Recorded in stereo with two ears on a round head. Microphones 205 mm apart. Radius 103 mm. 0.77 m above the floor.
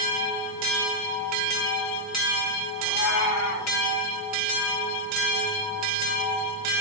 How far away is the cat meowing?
About 7 m.